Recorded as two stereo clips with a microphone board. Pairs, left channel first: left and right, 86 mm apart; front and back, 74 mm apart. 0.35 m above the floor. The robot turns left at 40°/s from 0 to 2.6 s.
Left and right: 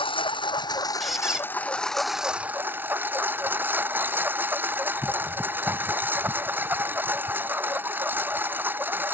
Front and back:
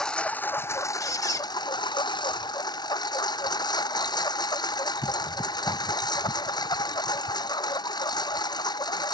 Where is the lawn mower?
80° left; by 9.2 s 20° right.